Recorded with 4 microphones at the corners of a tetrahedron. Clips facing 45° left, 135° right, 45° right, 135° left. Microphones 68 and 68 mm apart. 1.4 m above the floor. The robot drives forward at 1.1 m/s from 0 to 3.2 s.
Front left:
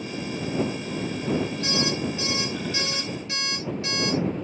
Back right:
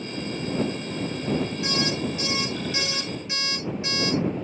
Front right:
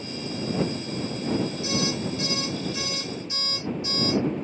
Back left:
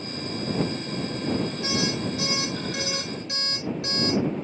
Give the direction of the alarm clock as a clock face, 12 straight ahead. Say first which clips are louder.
Even, even; 7 o'clock.